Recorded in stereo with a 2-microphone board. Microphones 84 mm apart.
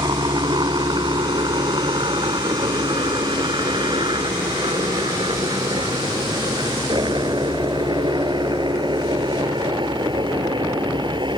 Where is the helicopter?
60° right (ahead or behind); by 11.4 s 70° right (ahead or behind).